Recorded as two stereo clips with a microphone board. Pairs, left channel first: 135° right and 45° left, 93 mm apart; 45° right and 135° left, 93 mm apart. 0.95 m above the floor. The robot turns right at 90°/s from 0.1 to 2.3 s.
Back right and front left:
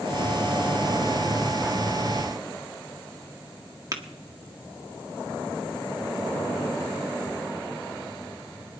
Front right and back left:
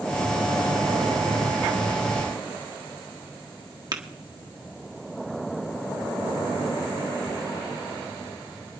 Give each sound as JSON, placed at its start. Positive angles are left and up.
{"t": 3.9, "sound": "tapping", "azimuth_deg": 95, "distance_m": 1.6}